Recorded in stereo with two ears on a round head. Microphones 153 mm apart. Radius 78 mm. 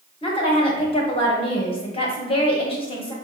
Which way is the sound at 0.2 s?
35° left (ahead or behind).